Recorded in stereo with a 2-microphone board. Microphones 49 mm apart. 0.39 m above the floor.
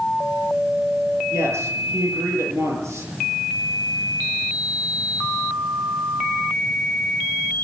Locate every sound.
1.3 s a man speaking: 80° right, 9.5 m